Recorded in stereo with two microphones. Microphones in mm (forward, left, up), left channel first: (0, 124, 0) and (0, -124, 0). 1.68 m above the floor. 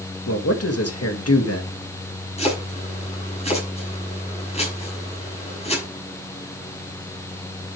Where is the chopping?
25° left (ahead or behind), 6 m.